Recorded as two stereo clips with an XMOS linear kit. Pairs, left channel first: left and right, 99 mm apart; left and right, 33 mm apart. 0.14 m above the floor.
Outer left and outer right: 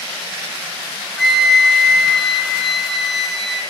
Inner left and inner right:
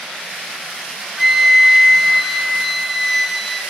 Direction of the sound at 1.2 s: Centre (ahead or behind).